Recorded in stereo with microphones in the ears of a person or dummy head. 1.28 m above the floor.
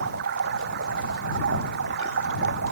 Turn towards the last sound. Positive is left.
turn(degrees=-60)  # may be behind; listen again after turning